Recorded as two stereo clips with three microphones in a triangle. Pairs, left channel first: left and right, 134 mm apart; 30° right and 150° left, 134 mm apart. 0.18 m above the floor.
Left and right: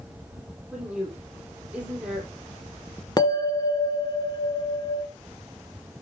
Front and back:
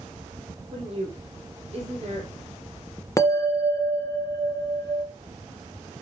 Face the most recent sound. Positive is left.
turn(degrees=35)